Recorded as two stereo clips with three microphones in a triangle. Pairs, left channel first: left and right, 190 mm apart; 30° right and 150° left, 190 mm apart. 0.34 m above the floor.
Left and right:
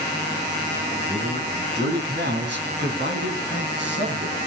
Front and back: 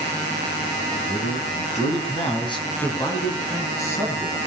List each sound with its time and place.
0.9 s a man speaking: 55° right, 2.5 m; by 4.4 s 110° right, 6 m